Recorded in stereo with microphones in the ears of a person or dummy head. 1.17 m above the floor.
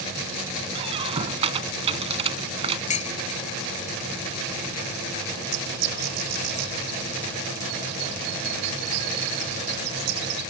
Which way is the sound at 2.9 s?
35° left (ahead or behind).